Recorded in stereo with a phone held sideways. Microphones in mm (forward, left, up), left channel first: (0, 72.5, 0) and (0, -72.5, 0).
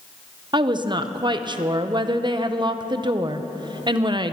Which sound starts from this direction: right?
A woman speaking, at 0.5 s.